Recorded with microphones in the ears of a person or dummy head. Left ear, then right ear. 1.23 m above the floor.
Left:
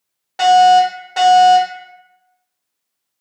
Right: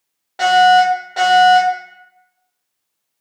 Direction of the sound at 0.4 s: 25° left (ahead or behind).